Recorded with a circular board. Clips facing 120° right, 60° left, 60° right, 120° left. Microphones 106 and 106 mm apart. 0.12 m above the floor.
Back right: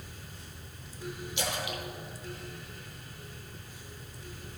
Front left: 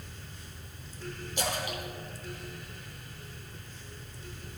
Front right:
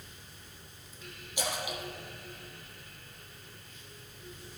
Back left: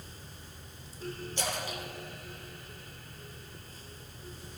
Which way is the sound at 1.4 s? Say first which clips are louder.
Front left 2 dB, front right 2 dB; 15° left.